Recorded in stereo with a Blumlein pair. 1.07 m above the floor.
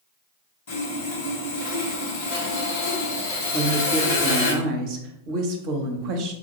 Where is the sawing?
60° left, 1.4 m.